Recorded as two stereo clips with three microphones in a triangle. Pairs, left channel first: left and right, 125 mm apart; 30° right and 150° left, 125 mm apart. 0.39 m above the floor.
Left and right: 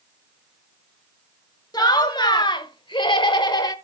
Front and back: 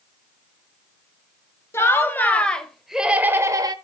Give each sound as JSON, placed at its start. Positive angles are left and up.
{"t": 1.7, "sound": "laughter", "azimuth_deg": 35, "distance_m": 1.7}